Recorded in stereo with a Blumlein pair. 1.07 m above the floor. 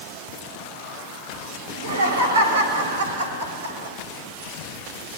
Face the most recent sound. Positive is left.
turn(degrees=-65)